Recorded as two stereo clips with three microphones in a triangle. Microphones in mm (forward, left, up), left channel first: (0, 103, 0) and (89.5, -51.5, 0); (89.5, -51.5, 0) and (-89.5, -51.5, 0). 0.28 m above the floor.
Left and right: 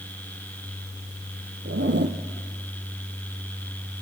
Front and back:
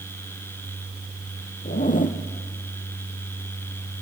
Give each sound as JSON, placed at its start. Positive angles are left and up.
{"t": 1.6, "sound": "a zipper", "azimuth_deg": -45, "distance_m": 1.7}